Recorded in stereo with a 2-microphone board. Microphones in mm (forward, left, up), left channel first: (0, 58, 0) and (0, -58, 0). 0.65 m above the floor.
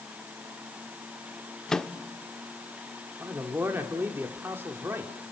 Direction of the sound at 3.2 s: 20° right (ahead or behind).